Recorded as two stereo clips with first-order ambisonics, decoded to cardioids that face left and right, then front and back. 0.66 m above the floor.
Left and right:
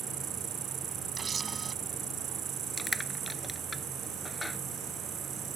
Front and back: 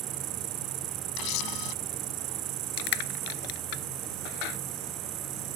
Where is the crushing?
5° left.